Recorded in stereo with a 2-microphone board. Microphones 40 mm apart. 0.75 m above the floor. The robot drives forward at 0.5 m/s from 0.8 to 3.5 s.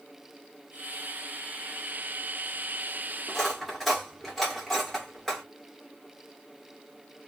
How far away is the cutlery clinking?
About 1.3 m.